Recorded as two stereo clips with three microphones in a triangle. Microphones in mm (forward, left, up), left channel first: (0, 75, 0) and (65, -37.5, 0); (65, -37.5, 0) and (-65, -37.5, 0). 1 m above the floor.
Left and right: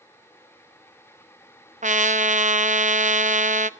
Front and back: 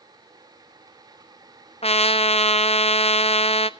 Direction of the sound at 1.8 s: 40° right.